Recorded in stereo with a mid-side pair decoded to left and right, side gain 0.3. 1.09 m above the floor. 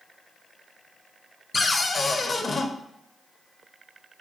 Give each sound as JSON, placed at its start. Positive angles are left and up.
{"t": 1.5, "sound": "a cupboard door", "azimuth_deg": 45, "distance_m": 0.5}